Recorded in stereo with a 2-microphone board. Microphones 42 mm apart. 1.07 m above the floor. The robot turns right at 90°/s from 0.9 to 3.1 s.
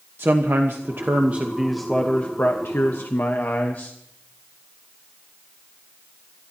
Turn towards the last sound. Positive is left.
turn(degrees=120)